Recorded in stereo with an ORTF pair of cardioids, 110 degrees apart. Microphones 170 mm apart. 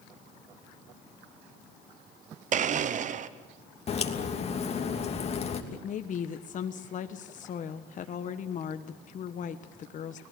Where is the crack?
40° left, 3 m.